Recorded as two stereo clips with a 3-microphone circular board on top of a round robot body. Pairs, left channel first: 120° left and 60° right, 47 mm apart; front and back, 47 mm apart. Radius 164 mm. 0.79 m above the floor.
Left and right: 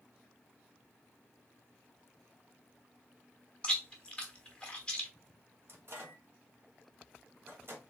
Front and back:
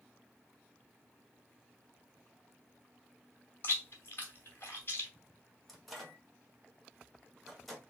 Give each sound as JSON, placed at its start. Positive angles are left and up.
{"t": 3.6, "sound": "chewing", "azimuth_deg": 45, "distance_m": 0.9}
{"t": 5.7, "sound": "a microwave", "azimuth_deg": -85, "distance_m": 2.0}